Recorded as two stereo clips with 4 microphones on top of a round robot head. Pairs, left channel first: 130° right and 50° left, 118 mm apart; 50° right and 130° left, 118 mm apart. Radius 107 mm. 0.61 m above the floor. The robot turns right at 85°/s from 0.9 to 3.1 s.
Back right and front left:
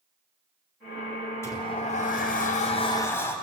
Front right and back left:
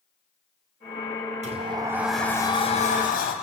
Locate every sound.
1.4 s a sliding door: 160° left, 2.5 m; by 3.3 s 60° right, 2.5 m